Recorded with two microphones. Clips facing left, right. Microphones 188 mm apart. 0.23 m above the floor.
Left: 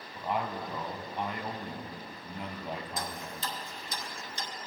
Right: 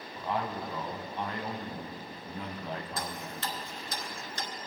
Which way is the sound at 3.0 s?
70° right (ahead or behind).